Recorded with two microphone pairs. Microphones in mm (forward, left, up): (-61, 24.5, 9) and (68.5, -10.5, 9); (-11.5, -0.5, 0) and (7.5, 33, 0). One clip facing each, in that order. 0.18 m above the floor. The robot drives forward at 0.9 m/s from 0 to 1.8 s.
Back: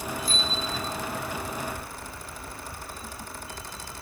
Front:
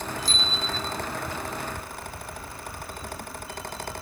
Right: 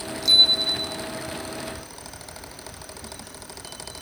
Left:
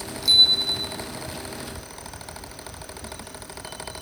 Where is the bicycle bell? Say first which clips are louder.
Even, even; 25° right, 6 m.